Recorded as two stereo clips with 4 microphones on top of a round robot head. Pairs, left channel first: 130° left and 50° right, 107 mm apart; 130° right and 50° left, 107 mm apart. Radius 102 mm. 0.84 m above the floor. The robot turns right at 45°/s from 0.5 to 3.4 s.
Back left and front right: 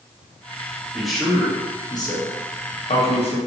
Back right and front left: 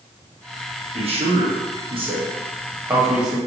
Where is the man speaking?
30° left, 1.1 m; by 3.4 s 140° left, 1.1 m.